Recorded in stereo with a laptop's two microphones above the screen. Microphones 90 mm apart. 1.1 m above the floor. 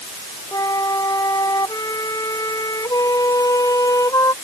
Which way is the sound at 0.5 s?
40° left (ahead or behind).